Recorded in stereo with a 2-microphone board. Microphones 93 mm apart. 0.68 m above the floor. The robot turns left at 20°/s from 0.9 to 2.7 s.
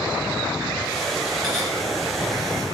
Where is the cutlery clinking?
5° left (ahead or behind), 3.5 m; by 1.6 s centre (ahead or behind), 3.5 m.